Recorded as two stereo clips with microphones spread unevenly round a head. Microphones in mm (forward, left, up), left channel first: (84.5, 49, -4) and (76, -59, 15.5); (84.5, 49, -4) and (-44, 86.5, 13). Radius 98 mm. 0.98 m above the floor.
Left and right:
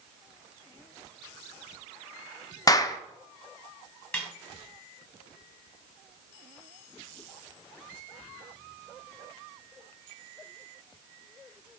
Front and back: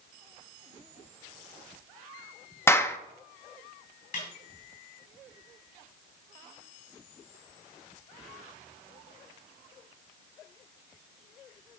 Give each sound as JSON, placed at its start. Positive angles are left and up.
{"t": 2.7, "sound": "a clap", "azimuth_deg": 45, "distance_m": 0.7}
{"t": 4.1, "sound": "a snare drum", "azimuth_deg": 0, "distance_m": 3.0}